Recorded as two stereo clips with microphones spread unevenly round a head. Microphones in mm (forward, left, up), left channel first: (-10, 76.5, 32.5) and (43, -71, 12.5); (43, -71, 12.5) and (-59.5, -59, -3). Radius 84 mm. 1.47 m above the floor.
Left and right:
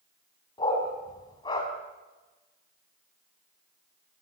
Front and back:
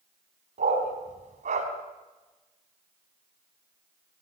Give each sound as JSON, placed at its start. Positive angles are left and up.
{"t": 0.6, "sound": "a dog barking", "azimuth_deg": 175, "distance_m": 4.0}